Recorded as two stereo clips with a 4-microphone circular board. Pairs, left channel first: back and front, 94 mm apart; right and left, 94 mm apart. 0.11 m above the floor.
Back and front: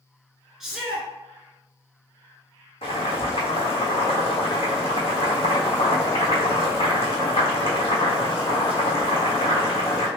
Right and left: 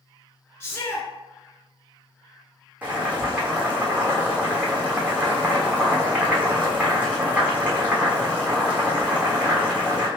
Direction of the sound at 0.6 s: 80° right.